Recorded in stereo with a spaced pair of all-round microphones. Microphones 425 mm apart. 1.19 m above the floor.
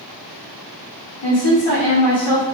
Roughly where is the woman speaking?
Left.